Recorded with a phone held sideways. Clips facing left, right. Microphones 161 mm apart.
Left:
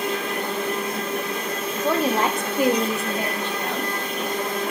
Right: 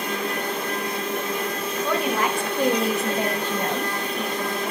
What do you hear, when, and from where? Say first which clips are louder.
1.8 s a woman speaking: left 3 dB; 35° left (ahead or behind), 0.9 m; by 4.7 s 45° right (ahead or behind), 1.5 m